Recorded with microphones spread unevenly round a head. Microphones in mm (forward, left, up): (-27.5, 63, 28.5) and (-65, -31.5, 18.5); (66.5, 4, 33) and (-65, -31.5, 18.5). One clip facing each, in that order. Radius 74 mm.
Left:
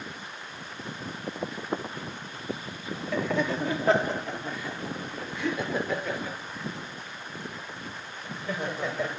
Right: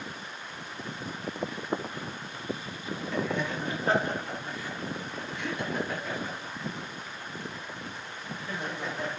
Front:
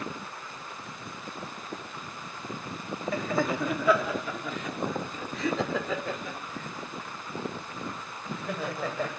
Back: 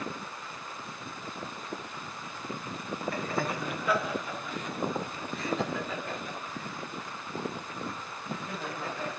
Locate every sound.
3.1 s laughter: 35° left, 3.5 m; by 9.1 s 50° left, 8.5 m